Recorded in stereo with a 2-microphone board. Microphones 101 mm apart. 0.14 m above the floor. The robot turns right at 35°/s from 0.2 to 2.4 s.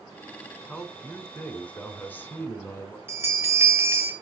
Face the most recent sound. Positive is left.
turn(degrees=-25)  # may be behind; listen again after turning